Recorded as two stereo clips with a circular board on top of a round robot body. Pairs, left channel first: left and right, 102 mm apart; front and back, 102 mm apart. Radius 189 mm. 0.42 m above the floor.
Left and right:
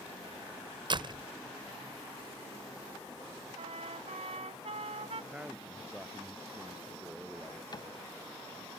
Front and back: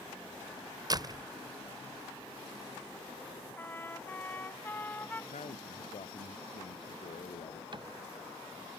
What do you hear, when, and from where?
0.9 s a door slam: 130° right
3.6 s a trumpet: 70° right
5.3 s a man speaking: 10° right
7.7 s a cupboard door: 140° left